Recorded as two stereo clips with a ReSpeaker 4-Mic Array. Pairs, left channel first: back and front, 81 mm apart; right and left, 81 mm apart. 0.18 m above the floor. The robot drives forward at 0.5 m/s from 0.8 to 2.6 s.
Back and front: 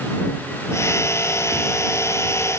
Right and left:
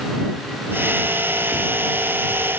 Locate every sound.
Only background noise.